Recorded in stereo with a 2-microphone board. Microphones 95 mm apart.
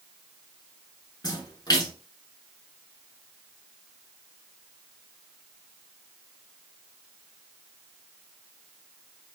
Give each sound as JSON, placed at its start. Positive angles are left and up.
{"t": 1.2, "sound": "a splash", "side_deg": 45, "distance_m": 1.1}